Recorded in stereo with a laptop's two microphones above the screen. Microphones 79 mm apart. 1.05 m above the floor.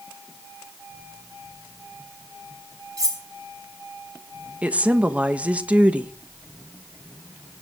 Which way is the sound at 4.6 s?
15° right (ahead or behind).